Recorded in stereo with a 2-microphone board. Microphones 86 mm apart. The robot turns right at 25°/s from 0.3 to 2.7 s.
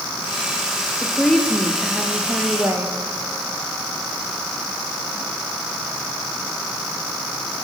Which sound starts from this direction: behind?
A woman speaking, at 1.0 s.